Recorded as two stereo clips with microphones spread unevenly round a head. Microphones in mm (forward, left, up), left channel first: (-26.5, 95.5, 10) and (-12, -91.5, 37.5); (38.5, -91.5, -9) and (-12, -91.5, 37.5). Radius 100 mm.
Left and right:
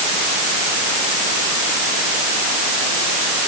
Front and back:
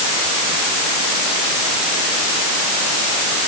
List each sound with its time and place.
Only background noise.